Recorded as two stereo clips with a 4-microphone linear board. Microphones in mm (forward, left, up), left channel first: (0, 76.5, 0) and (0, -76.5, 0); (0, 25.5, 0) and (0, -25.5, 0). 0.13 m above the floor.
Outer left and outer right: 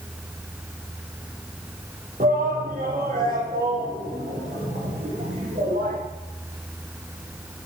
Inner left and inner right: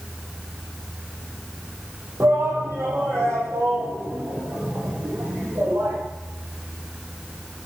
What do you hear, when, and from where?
2.2 s a shout: 65° right (ahead or behind), 5 m